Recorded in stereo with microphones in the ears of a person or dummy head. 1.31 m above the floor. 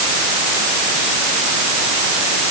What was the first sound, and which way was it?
Only background noise.